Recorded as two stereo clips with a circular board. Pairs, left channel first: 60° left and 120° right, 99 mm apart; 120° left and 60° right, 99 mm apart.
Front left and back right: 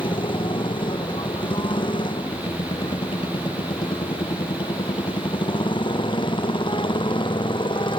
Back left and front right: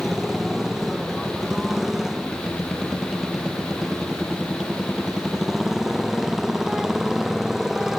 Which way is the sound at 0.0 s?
25° left.